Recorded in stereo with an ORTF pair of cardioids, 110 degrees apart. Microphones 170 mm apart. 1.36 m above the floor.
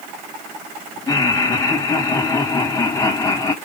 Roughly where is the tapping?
No tapping in this recording.